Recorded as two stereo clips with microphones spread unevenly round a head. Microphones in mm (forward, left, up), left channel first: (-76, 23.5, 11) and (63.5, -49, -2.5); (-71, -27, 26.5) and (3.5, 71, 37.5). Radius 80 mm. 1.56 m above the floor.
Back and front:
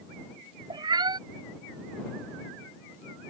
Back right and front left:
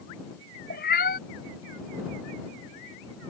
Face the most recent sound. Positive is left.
turn(degrees=-95)